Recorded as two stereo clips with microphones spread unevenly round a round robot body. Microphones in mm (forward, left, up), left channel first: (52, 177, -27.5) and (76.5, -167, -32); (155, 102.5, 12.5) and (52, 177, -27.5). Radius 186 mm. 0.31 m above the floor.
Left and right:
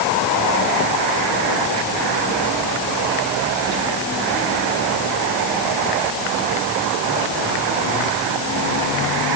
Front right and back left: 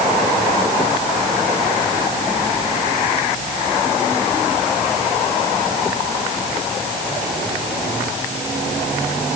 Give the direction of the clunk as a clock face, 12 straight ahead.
No clunk in this recording.